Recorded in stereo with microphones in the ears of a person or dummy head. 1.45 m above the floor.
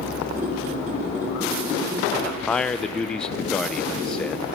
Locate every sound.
0.4 s a squeak: 10° right (ahead or behind), 1.7 m
2.1 s a man speaking: 10° left (ahead or behind), 0.7 m